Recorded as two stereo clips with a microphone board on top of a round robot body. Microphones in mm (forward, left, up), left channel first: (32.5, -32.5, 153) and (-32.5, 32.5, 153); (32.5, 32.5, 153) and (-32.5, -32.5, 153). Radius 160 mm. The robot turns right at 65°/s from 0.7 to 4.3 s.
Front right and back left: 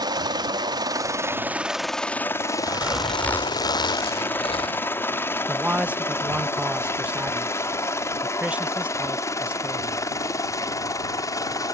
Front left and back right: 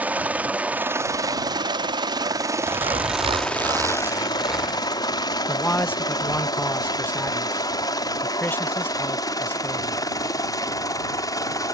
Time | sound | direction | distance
0.0 | a helicopter | 155° left | ?
2.6 | a zipper | 160° right | ?
5.5 | a man speaking | 80° left | ?